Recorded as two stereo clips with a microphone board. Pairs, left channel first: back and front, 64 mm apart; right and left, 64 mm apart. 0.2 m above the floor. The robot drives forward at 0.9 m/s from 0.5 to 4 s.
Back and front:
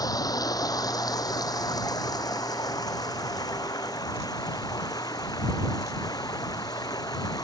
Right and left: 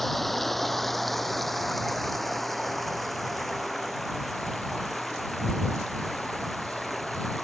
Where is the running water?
Straight behind.